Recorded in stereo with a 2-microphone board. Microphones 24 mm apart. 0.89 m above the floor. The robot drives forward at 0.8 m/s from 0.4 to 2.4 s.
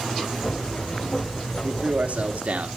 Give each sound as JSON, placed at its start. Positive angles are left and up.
{"t": 1.6, "sound": "a man speaking", "side_deg": -60, "distance_m": 2.0}